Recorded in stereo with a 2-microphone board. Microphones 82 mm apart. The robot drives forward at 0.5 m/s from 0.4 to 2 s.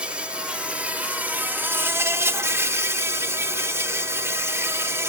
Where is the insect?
15° right (ahead or behind), 1.5 m; by 5.1 s 30° right (ahead or behind), 0.8 m.